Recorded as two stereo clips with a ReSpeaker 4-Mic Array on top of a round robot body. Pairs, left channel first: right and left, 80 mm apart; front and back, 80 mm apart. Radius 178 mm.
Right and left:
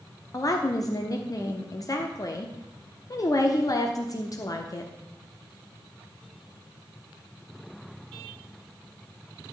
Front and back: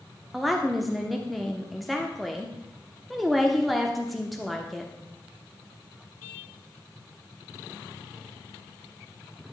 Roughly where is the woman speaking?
Right.